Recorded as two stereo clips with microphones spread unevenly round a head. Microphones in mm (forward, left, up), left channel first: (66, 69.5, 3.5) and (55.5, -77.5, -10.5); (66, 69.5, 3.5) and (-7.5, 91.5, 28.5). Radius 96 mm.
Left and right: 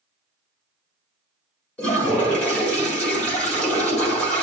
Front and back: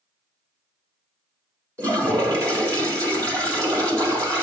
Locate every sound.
1.8 s a toilet flushing: 160° left, 1.8 m